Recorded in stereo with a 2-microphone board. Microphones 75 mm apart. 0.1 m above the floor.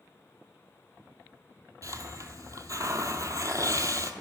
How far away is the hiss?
About 0.8 m.